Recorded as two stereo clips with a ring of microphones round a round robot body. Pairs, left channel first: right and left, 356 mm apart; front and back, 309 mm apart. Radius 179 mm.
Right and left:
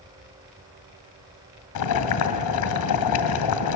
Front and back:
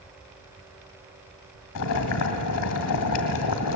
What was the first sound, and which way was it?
Boiling, 50° right.